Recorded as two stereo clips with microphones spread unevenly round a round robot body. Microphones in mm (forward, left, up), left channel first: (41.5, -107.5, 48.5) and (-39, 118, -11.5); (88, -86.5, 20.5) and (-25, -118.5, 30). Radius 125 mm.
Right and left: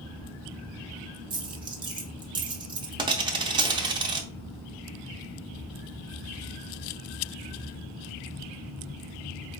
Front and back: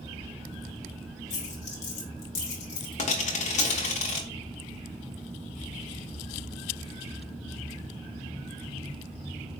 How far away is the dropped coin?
About 0.7 m.